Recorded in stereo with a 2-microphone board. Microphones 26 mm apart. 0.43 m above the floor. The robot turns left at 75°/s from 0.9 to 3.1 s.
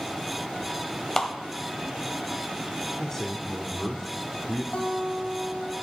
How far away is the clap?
About 1.4 m.